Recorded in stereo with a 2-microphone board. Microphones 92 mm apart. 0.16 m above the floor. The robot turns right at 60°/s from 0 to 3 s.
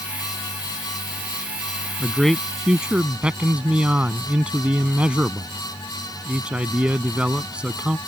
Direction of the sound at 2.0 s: 10° left (ahead or behind).